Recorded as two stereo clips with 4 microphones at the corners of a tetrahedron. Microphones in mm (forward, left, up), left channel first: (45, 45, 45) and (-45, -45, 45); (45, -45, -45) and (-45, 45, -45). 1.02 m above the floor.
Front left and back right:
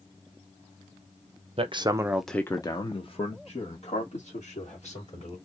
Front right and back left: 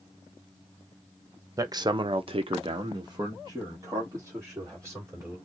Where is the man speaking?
165° right, 0.9 m; by 5.4 s 65° left, 3 m.